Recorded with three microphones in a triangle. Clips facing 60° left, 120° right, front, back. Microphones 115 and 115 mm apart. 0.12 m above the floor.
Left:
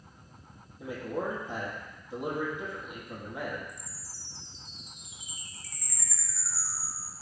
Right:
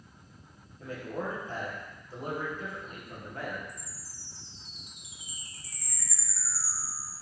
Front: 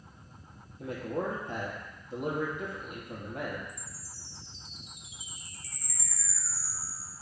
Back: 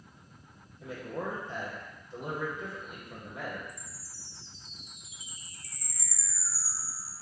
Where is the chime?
165° left, 1.9 m.